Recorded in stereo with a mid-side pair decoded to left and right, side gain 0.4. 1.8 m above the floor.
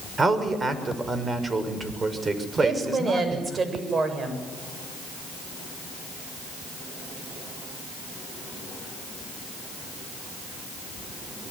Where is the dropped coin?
No dropped coin in this recording.